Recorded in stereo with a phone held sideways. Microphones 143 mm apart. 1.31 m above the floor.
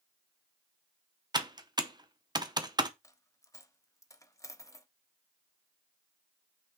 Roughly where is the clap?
I don't hear a clap.